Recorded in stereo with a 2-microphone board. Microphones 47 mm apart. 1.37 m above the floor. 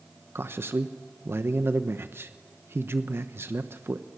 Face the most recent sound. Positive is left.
turn(degrees=-60)  # may be behind; listen again after turning